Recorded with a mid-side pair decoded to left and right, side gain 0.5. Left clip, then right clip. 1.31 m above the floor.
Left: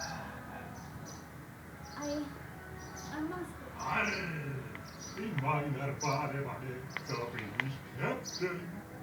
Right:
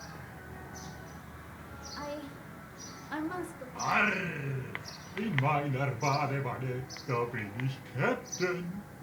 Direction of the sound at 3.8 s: 55° right.